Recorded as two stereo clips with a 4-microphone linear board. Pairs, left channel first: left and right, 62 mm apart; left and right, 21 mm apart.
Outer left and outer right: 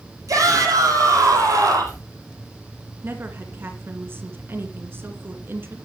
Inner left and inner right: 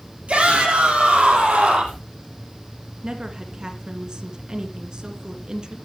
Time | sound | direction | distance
0.3 | a shout | 65° right (ahead or behind) | 6.5 m
3.0 | a woman speaking | 40° right (ahead or behind) | 2.5 m